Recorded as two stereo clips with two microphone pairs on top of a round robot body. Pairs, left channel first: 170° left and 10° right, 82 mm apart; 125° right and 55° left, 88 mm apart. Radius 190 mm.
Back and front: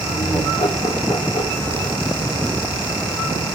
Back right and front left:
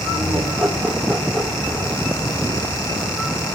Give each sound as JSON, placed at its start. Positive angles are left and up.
{"t": 0.1, "sound": "laughter", "azimuth_deg": 150, "distance_m": 5.0}